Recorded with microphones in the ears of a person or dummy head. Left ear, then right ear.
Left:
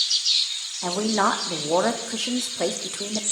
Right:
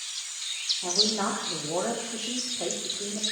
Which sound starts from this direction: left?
A woman speaking, at 0.8 s.